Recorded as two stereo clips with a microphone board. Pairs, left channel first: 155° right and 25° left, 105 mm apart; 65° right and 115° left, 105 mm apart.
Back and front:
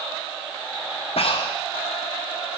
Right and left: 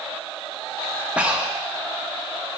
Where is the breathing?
170° right, 0.7 m.